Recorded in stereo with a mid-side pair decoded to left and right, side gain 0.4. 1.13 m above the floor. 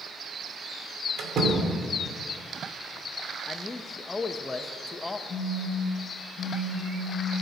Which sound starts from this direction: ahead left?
A man speaking, at 3.5 s.